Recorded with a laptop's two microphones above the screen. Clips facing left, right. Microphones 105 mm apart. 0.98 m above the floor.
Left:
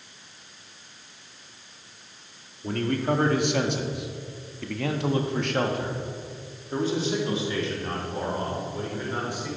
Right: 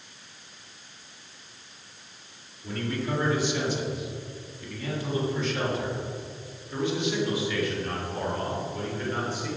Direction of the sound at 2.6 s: 50° left (ahead or behind).